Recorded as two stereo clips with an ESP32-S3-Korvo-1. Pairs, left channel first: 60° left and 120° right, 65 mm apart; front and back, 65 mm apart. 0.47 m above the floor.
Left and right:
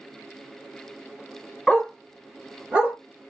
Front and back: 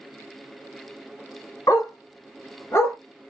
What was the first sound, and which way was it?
A dog barking, 20° right.